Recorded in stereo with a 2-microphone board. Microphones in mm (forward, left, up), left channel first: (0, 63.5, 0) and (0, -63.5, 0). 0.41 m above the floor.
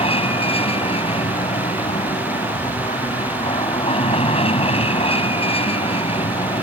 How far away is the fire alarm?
No fire alarm in this recording.